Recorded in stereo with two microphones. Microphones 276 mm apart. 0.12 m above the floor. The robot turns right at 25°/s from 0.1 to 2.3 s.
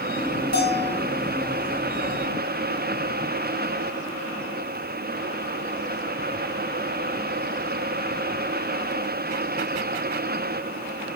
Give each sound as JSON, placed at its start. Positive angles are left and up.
{"t": 0.5, "sound": "a bell", "side_deg": 70, "distance_m": 4.5}